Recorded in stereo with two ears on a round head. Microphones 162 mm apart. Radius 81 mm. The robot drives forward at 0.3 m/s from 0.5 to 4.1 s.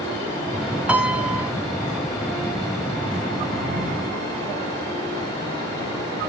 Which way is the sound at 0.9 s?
5° right (ahead or behind).